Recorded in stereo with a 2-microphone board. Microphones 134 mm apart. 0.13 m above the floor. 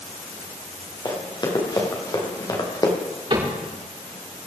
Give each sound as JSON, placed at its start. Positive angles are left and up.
{"t": 1.1, "sound": "running footsteps", "side_deg": 35, "distance_m": 4.5}
{"t": 3.3, "sound": "a cupboard door", "side_deg": -35, "distance_m": 7.0}